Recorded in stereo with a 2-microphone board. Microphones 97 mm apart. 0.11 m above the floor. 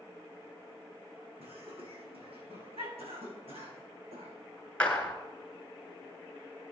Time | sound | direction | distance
1.4 | laughter | 75° right (ahead or behind) | 5.5 m
3.0 | a cough | 80° right | 5 m
4.8 | a clap | 10° left (ahead or behind) | 1.4 m